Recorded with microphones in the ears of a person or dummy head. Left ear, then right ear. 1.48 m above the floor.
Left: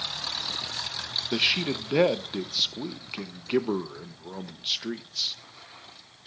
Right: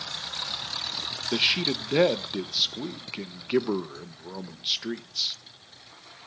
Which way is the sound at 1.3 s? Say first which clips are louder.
Right 2 dB; centre (ahead or behind).